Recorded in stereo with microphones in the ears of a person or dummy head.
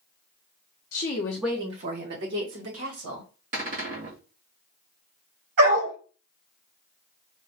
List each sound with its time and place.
0.9 s a woman speaking: 45° left (ahead or behind), 0.7 m; by 3.3 s 75° right (ahead or behind), 2 m
3.5 s a cupboard door: 35° right (ahead or behind), 1.1 m
5.6 s a dog barking: 60° right (ahead or behind), 2.5 m